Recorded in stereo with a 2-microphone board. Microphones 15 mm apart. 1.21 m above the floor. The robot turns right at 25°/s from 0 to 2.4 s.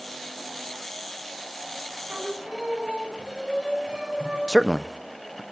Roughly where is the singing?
Right.